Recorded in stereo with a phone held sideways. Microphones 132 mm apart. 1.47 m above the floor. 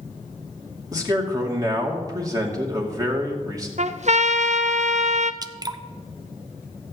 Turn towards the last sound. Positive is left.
turn(degrees=-30)  # may be behind; listen again after turning